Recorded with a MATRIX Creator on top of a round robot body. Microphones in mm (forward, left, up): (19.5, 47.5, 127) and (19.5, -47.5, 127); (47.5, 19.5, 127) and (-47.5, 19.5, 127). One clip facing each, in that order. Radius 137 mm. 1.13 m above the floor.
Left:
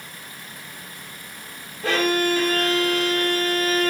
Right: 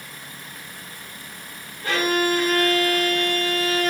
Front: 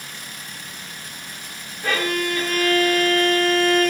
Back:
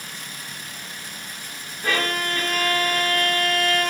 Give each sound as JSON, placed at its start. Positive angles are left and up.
{"t": 1.8, "sound": "a violin", "azimuth_deg": 90, "distance_m": 1.3}